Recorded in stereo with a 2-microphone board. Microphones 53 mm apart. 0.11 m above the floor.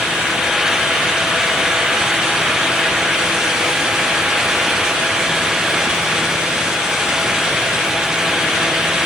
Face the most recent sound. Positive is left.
No sound to turn to.